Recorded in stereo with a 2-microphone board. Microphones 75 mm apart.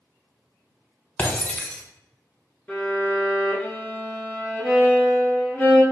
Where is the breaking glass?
15° left (ahead or behind), 0.7 m.